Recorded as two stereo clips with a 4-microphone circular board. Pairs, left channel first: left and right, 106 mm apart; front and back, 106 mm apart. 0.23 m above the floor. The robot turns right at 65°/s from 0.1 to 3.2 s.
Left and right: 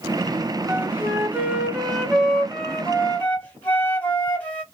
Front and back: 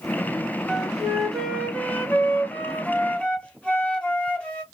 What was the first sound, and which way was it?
A flute, 115° right.